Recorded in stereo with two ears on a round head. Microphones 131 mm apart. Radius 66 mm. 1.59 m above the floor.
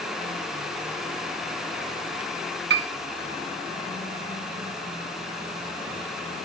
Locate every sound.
2.7 s a piano: 80° right, 2 m